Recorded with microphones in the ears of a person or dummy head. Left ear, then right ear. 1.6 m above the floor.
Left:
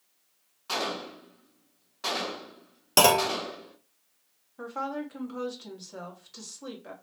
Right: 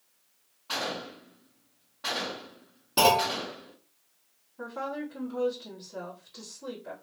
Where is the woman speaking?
80° left, 1.3 m.